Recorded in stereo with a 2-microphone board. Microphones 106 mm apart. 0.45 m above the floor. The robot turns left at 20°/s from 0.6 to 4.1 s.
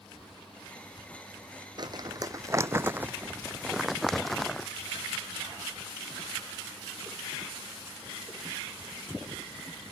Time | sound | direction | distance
1.8 | crumpling | 45° right (ahead or behind) | ?